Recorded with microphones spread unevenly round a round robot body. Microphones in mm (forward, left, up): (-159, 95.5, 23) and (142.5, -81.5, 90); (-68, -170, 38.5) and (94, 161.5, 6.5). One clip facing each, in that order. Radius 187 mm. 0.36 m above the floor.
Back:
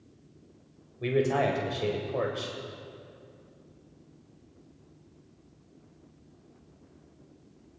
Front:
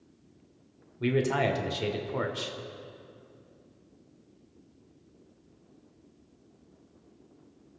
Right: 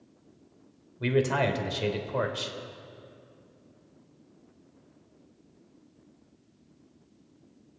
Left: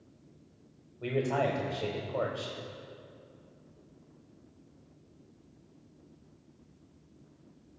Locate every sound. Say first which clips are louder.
1.0 s a man speaking: back 1 dB, right 4 dB; 90° right, 1.4 m